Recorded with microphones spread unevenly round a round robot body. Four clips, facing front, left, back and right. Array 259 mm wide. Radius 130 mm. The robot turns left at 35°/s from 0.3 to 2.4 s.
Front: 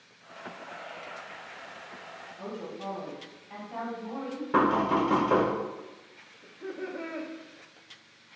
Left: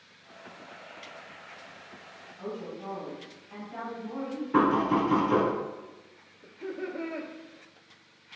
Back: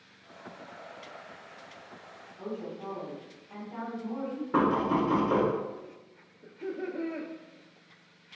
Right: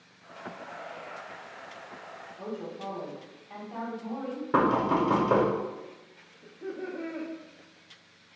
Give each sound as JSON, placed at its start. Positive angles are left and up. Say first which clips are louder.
{"t": 2.4, "sound": "a woman speaking", "louder": "even, back 1 dB", "azimuth_deg": -65, "distance_m": 1.5}
{"t": 4.5, "sound": "knocking", "louder": "even, front 2 dB", "azimuth_deg": -70, "distance_m": 1.1}
{"t": 6.4, "sound": "laughter", "louder": "left 1 dB, back 2 dB", "azimuth_deg": -170, "distance_m": 0.6}